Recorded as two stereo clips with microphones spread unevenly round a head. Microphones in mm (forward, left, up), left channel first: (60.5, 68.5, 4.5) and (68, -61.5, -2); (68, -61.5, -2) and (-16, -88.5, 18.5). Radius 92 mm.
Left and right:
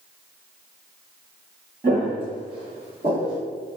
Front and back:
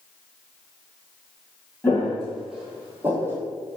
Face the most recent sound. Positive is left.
turn(degrees=-135)